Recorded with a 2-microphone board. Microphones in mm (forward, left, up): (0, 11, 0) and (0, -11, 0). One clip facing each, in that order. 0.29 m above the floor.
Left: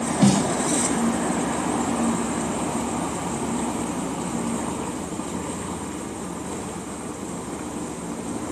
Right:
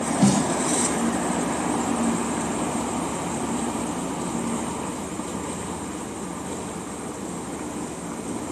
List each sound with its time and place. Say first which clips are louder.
0.2 s a snare drum: left 1 dB; 20° left (ahead or behind)